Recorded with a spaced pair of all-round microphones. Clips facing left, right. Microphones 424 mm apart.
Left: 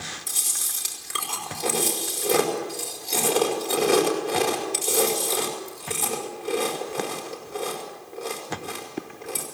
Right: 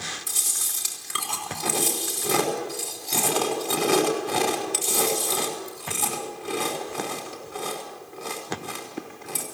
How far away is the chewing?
About 5.5 m.